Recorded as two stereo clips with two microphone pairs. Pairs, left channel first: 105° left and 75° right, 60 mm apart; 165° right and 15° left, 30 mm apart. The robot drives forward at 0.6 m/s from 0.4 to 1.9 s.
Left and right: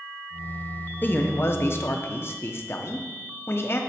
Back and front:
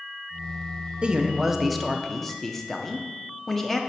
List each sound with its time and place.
1.0 s a man speaking: 65° left, 0.7 m; by 3.8 s 120° left, 0.8 m